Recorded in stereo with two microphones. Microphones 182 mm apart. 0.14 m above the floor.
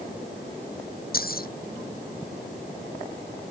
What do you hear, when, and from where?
1.1 s keys jangling: 60° left (ahead or behind)